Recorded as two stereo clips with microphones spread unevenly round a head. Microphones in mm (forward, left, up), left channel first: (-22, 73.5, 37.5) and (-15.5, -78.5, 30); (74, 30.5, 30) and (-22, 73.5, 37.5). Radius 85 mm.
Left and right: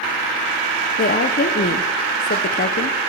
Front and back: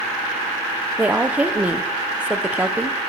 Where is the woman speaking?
80° left, 0.8 m.